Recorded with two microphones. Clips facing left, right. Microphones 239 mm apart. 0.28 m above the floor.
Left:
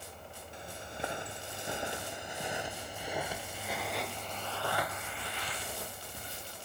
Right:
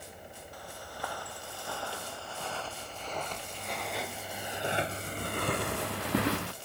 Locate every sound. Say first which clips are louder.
0.5 s footsteps: left 2 dB; 25° left (ahead or behind); by 6.5 s 75° right (ahead or behind)